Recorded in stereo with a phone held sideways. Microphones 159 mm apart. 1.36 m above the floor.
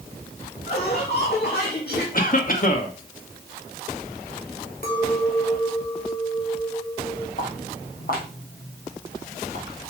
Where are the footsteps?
60° left (ahead or behind), 3.5 m; by 9.8 s 65° left (ahead or behind), 5.5 m.